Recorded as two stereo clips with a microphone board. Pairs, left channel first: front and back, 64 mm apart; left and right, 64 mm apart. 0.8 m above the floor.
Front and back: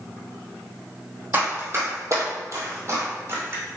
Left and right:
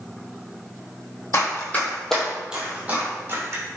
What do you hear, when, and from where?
1.3 s running footsteps: 130° left, 1.4 m; by 3.6 s 130° right, 2.0 m